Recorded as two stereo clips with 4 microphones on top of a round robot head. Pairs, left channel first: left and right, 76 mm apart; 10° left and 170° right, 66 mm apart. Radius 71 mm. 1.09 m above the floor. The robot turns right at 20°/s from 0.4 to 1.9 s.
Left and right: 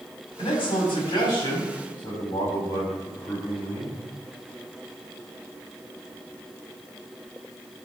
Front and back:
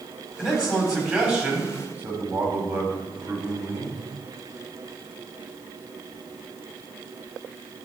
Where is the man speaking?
105° left, 3.5 m; by 4.0 s 135° left, 3.5 m.